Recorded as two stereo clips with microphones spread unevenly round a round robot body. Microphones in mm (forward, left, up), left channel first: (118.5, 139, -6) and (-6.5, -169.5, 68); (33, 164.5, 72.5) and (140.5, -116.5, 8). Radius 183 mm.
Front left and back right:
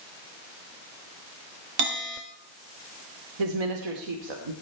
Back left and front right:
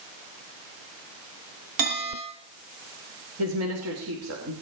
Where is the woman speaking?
110° right, 3 m.